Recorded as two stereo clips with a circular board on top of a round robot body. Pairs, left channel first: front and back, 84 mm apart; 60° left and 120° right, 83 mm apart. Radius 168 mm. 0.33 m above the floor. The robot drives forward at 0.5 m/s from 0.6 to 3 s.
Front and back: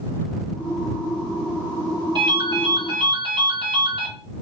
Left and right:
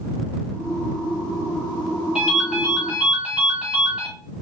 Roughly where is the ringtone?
Behind.